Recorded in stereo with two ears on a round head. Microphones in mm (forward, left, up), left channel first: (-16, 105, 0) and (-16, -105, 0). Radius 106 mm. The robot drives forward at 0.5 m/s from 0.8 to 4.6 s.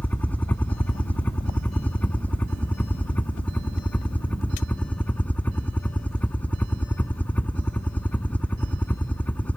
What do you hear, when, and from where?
0.0 s a helicopter: 5° left (ahead or behind)